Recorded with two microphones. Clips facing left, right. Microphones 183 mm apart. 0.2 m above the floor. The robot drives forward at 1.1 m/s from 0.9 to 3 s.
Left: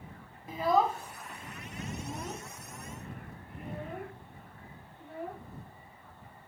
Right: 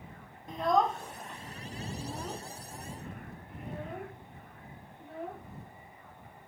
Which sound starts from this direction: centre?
A child speaking, at 0.5 s.